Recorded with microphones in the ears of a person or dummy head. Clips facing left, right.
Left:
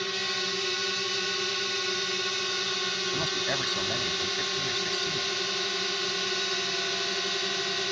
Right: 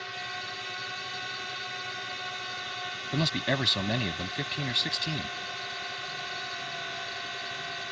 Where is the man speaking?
40° right (ahead or behind).